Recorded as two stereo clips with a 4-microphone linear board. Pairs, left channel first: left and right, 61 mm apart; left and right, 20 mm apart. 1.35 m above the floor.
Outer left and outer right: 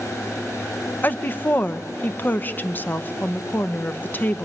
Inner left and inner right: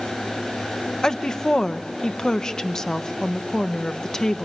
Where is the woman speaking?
30° left (ahead or behind), 0.8 m.